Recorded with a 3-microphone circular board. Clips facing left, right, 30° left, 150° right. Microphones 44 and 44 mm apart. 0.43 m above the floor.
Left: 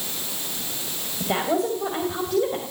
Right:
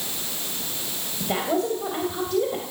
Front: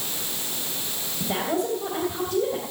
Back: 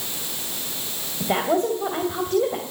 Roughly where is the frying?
I don't hear frying.